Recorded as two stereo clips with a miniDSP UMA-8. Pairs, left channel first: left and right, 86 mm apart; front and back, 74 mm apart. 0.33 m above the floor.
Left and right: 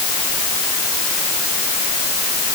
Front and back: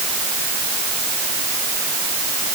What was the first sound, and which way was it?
Only background noise.